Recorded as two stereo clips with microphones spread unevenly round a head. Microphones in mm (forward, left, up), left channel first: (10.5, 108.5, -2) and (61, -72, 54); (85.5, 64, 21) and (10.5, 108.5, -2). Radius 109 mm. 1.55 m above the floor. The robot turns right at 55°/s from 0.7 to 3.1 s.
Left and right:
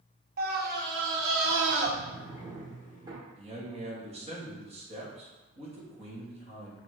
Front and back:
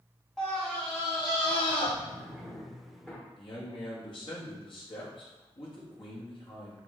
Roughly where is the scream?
Behind right.